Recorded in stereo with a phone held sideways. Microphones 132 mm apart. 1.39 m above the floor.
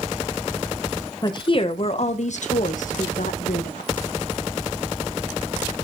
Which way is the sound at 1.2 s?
30° left (ahead or behind).